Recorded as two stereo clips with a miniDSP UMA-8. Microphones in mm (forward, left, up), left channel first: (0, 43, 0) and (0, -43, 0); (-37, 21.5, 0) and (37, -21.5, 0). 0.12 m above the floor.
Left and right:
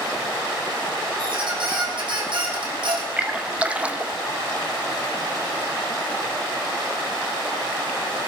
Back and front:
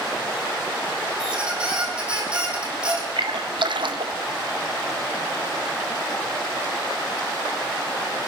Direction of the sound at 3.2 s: 15° right.